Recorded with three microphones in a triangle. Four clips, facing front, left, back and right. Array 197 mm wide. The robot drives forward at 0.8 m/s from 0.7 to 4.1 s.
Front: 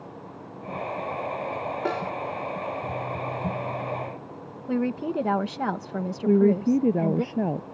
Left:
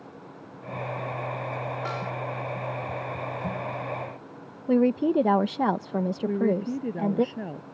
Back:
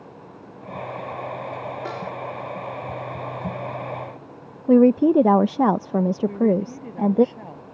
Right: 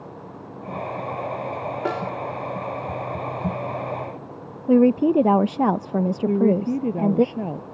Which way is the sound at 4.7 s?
150° right.